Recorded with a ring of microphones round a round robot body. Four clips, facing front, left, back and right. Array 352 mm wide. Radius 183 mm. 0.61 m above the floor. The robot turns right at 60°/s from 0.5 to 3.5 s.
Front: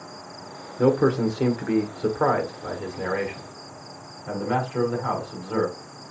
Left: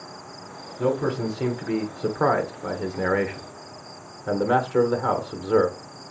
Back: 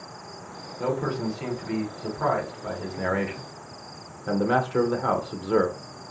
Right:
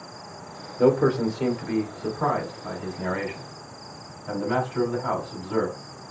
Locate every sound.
0.8 s a man speaking: 30° right, 1.7 m; by 5.8 s 130° left, 1.7 m